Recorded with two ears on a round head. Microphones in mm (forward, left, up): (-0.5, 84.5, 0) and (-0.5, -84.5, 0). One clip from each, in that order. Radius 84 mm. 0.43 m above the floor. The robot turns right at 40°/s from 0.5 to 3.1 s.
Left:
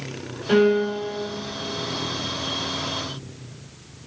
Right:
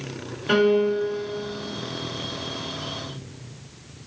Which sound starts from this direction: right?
A piano, at 0.5 s.